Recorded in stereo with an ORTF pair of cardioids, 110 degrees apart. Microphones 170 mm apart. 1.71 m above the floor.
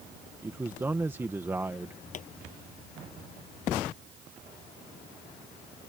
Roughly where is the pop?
Ahead left.